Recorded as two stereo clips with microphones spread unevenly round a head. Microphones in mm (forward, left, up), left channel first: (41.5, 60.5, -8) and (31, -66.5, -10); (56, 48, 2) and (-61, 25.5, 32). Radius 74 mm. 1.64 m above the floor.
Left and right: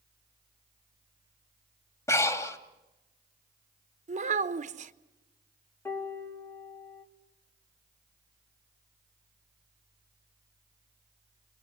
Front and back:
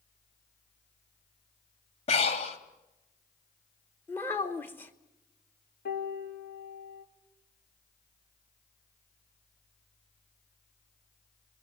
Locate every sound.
2.1 s breathing: 35° left, 1.7 m
4.1 s a child speaking: 75° right, 1.1 m
5.8 s a piano: 10° left, 2.5 m